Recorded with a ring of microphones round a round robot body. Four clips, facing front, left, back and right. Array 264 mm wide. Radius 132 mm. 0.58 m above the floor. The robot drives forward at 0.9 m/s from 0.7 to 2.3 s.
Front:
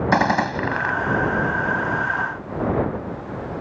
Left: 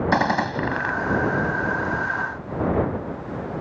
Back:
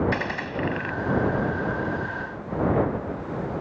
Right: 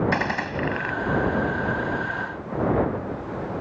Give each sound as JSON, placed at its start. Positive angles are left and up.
{"t": 0.1, "sound": "a gunshot", "azimuth_deg": 25}